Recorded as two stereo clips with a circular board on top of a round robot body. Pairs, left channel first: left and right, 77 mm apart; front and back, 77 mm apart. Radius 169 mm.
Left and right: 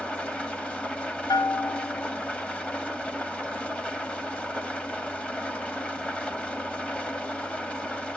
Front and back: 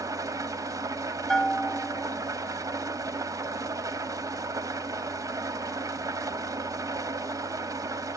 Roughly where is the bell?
Left.